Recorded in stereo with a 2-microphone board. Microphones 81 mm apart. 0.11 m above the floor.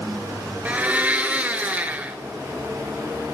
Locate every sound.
0.7 s a blender: 20° right (ahead or behind), 0.5 m